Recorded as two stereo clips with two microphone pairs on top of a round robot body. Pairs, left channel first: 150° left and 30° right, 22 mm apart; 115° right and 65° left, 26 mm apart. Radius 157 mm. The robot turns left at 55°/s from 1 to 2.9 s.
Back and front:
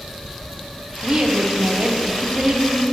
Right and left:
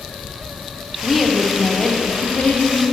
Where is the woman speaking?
5° left, 1.0 m; by 2.8 s 95° right, 1.0 m.